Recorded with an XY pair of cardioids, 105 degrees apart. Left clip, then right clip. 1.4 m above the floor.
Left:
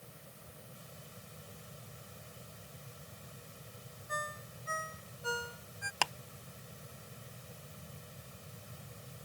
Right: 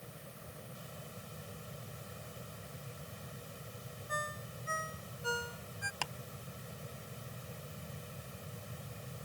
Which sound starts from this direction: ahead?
A ringtone, at 4.1 s.